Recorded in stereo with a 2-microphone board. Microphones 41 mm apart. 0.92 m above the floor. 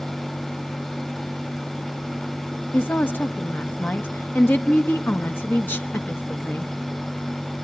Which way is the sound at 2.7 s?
55° left (ahead or behind).